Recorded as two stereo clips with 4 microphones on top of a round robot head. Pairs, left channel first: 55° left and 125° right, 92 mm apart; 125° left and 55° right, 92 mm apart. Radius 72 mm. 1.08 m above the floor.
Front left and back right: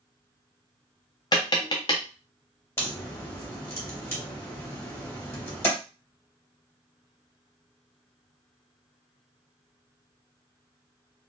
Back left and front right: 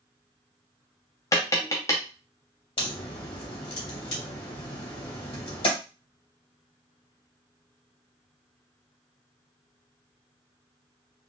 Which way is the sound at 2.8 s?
120° left.